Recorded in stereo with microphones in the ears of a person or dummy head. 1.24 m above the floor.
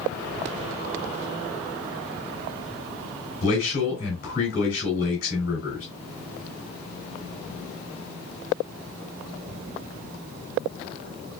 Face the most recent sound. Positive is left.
turn(degrees=40)  # may be behind; listen again after turning